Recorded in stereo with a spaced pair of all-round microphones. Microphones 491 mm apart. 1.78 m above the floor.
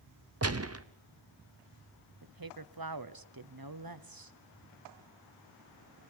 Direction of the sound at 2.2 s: 45° right (ahead or behind).